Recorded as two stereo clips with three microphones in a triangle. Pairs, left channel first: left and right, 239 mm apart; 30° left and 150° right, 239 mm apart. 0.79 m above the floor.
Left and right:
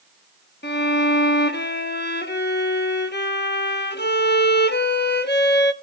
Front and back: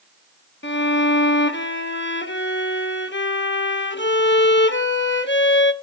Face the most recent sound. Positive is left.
turn(degrees=55)